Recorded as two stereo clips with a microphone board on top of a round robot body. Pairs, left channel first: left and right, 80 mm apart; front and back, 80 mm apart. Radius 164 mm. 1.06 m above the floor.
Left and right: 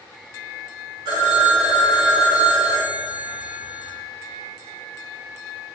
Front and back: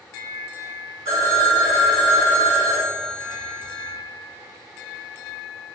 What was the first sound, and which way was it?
A phone ringing, 125° right.